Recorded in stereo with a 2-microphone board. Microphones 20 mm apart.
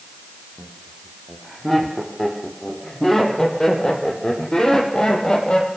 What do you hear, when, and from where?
0.6 s laughter: 5° right (ahead or behind), 6 m; by 5.7 s 40° left (ahead or behind), 5.5 m